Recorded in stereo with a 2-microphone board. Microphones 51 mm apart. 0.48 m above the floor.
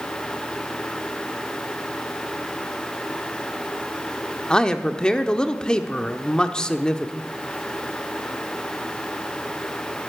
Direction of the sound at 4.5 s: 15° left (ahead or behind).